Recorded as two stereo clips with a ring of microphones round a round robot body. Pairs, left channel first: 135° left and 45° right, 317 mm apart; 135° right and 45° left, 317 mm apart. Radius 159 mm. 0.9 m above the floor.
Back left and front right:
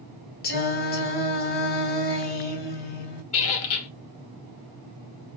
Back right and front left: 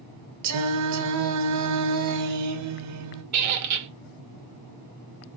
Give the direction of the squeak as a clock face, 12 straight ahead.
9 o'clock.